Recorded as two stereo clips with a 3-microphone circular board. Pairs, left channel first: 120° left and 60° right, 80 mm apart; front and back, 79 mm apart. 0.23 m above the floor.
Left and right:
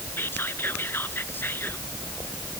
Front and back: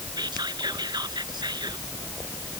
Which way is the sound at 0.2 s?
Straight behind.